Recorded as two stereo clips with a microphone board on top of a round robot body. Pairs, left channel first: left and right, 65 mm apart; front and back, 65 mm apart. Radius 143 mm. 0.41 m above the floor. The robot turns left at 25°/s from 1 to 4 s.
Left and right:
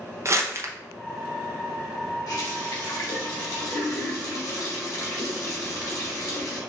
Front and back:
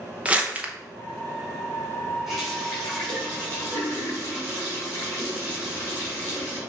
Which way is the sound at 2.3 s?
95° left.